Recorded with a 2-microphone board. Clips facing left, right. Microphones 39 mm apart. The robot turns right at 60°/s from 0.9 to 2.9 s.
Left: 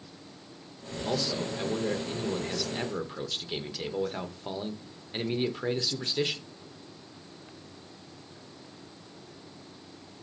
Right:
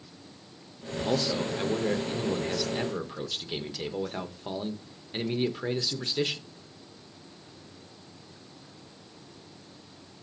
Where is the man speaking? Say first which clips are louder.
Right 3 dB; 20° right (ahead or behind), 0.7 m; by 6.5 s centre (ahead or behind), 0.7 m.